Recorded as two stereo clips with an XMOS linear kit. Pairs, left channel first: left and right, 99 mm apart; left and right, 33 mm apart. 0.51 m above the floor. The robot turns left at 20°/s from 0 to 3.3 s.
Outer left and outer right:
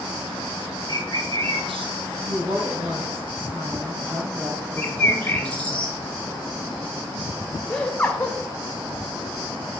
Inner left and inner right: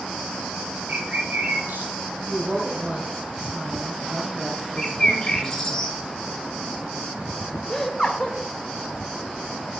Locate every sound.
0.9 s a bird: 60° right (ahead or behind), 1.7 m; by 1.9 s 80° right, 1.7 m
2.3 s a woman speaking: 65° right (ahead or behind), 2.5 m; by 5.8 s 60° right (ahead or behind), 2.5 m
4.8 s a bird: 15° left (ahead or behind), 1.7 m
7.7 s laughter: 10° left (ahead or behind), 2.0 m